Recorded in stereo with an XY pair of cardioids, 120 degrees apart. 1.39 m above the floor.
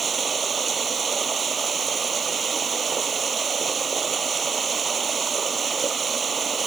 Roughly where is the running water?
Ahead right.